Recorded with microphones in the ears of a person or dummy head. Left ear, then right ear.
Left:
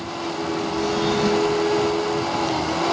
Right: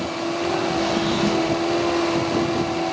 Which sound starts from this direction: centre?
A drawer, at 0.8 s.